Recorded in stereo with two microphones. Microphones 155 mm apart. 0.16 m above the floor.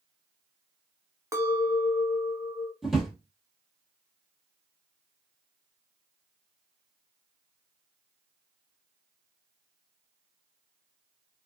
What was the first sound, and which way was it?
A clink, 20° right (ahead or behind).